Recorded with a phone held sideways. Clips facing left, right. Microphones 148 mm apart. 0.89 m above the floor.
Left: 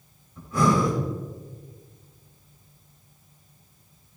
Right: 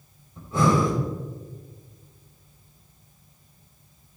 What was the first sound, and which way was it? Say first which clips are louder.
Breathing: even; 30° right (ahead or behind).